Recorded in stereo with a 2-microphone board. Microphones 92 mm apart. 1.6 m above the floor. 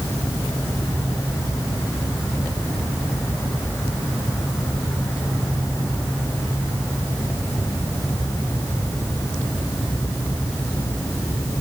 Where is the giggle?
No giggle in this recording.